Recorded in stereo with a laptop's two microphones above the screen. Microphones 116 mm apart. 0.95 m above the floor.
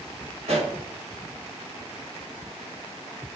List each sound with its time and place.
0.4 s a pop: 80° right, 3.5 m